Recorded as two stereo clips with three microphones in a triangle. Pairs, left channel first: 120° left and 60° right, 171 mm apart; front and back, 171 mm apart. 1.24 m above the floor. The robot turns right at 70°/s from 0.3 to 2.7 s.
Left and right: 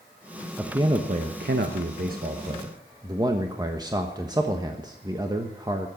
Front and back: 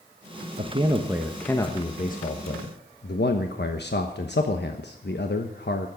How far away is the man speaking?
About 1.2 m.